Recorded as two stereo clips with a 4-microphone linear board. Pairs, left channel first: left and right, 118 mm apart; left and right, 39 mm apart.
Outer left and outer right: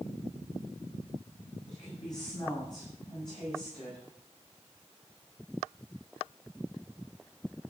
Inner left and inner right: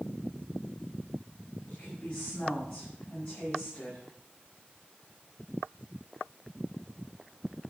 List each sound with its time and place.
1.7 s a woman speaking: 35° left (ahead or behind), 9.5 m; by 4.0 s 40° left (ahead or behind), 10.5 m